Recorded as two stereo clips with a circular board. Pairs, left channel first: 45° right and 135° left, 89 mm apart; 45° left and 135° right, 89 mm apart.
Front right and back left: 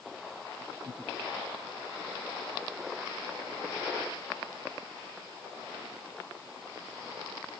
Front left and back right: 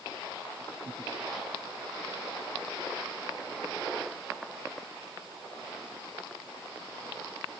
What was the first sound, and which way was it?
Only background noise.